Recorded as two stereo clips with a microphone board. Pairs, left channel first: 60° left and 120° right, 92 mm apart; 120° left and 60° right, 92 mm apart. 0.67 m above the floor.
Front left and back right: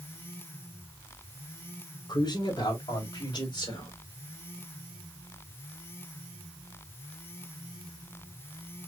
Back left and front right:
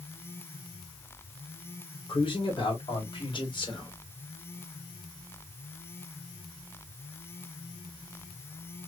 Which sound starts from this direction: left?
A man speaking, at 2.1 s.